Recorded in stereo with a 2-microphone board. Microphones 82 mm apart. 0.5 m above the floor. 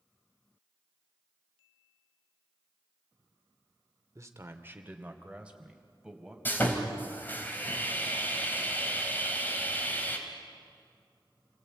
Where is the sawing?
25° left (ahead or behind), 2.5 m.